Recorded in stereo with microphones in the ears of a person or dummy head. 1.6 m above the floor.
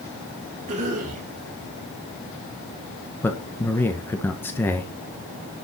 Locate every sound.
0.7 s a cough: 40° right (ahead or behind), 5.5 m
3.2 s a man speaking: 10° left (ahead or behind), 1.3 m